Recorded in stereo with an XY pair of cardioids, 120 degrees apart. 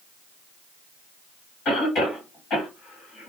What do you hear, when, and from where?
1.6 s a cough: 50° left, 1.6 m